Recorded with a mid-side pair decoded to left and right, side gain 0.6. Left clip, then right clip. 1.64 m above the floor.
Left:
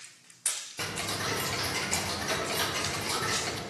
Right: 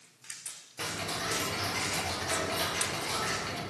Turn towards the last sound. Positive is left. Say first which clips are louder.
# even
turn(degrees=25)